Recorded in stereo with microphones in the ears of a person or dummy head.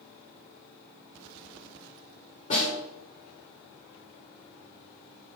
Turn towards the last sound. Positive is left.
turn(degrees=40)  # may be behind; listen again after turning